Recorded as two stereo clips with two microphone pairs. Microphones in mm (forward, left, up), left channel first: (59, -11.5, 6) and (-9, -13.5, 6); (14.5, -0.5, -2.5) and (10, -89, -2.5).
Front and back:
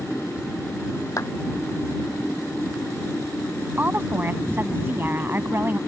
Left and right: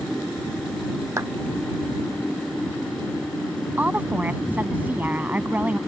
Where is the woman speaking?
145° right.